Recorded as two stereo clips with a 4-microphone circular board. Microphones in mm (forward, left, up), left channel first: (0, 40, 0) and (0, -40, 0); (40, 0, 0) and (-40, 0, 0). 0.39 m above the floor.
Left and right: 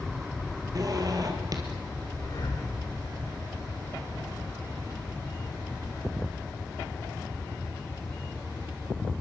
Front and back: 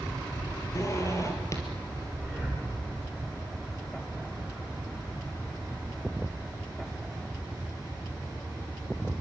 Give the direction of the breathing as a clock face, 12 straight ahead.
10 o'clock.